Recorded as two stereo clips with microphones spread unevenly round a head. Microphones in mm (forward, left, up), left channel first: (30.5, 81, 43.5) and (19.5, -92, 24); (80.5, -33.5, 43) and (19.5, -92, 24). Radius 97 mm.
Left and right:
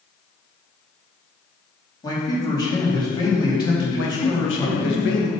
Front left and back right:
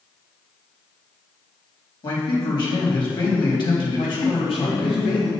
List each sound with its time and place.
2.0 s a man speaking: 20° left, 3 m
4.0 s a man speaking: 80° left, 2 m